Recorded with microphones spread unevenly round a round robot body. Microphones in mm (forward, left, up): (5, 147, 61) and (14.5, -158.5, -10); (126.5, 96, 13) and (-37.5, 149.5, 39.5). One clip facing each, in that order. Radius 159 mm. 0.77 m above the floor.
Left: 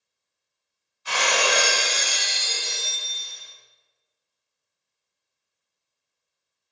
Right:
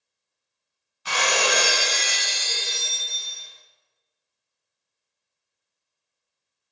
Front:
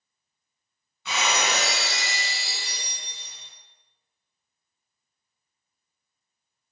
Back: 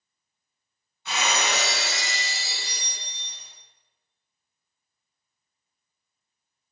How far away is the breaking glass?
About 3 m.